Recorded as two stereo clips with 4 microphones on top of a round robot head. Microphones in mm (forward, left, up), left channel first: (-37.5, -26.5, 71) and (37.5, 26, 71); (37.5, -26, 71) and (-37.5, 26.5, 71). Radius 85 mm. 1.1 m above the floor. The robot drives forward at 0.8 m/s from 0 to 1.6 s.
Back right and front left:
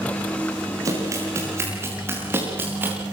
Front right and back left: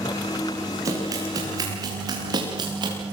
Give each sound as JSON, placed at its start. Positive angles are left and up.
{"t": 0.8, "sound": "running footsteps", "azimuth_deg": 90, "distance_m": 9.5}